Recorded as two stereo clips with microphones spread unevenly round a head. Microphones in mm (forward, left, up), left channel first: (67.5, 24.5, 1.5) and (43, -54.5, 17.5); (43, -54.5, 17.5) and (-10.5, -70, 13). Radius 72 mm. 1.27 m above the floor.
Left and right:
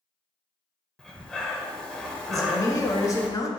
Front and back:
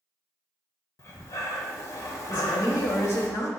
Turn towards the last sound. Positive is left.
turn(degrees=45)